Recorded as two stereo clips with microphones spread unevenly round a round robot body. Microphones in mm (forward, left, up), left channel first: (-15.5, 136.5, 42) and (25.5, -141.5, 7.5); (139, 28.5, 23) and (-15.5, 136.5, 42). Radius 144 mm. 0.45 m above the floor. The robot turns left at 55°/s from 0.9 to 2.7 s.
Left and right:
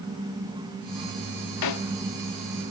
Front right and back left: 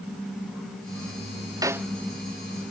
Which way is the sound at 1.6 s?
75° left.